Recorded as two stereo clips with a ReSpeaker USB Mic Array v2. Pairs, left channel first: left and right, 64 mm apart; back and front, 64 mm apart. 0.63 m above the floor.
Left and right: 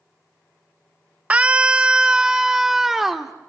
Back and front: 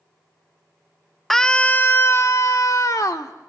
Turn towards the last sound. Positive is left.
turn(degrees=-175)